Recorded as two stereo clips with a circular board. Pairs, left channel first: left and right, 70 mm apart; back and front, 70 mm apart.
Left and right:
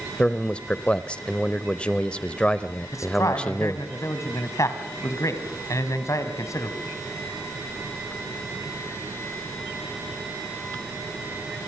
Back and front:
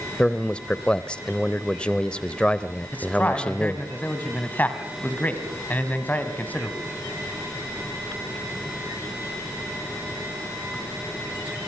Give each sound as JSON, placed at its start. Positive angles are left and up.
{"t": 0.2, "sound": "a man speaking", "azimuth_deg": 135, "distance_m": 0.9}
{"t": 2.9, "sound": "a man speaking", "azimuth_deg": 120, "distance_m": 2.5}